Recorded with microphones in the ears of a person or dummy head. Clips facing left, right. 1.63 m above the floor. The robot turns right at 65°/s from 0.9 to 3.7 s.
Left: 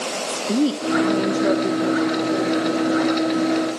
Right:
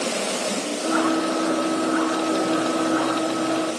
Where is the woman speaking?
75° left, 0.6 m; by 2.6 s 175° right, 0.6 m.